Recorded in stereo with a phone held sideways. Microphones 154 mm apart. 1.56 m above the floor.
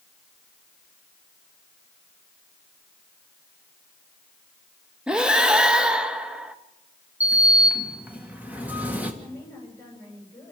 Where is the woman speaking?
20° left (ahead or behind), 9 m.